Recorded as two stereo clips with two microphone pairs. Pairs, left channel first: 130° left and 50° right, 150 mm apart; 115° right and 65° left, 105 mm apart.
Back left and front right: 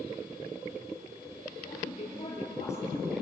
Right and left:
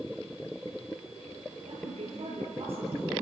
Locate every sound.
1.7 s a woman speaking: 85° left, 8 m